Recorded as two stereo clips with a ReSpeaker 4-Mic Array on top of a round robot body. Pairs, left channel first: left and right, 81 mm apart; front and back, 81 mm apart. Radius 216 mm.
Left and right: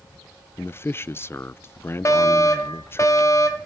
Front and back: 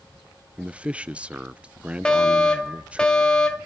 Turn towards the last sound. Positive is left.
turn(degrees=75)